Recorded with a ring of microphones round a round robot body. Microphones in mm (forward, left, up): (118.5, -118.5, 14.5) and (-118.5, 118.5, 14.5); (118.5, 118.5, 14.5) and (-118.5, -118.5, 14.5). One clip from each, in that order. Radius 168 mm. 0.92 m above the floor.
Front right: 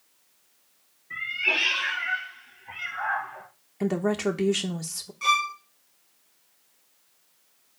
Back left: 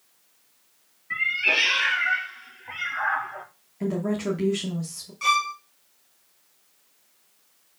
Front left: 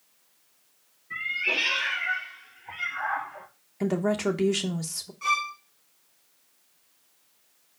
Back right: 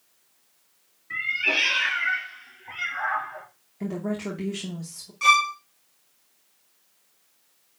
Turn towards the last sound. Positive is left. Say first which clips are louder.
# back left 1 dB, back right 8 dB
turn(degrees=-145)